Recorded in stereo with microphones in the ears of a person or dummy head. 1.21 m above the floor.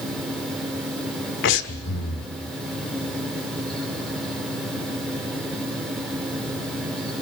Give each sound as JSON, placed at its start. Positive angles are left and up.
{"t": 0.0, "sound": "a fan", "side_deg": 0, "distance_m": 4.0}
{"t": 1.4, "sound": "breathing", "side_deg": 65, "distance_m": 1.6}